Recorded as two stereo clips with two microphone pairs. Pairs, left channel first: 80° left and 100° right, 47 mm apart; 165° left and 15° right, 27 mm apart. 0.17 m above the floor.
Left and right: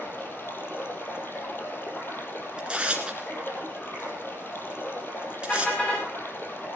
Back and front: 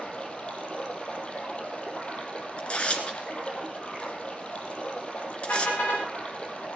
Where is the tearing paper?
165° right, 2 m.